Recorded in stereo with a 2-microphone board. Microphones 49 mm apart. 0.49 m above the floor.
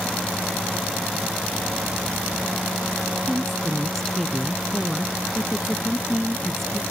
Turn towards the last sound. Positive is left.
turn(degrees=5)  # may be behind; listen again after turning